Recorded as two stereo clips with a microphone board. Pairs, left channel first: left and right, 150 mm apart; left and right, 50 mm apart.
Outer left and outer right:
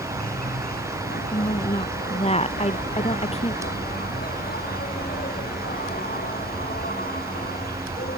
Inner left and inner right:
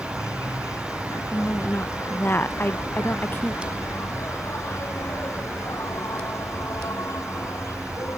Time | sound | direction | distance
0.0 | an insect | 85° left | ?
1.3 | a woman speaking | 45° left (ahead or behind) | ?